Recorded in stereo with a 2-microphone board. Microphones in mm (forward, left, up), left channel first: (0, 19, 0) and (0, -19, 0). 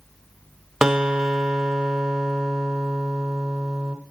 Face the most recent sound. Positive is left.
turn(degrees=-15)  # may be behind; listen again after turning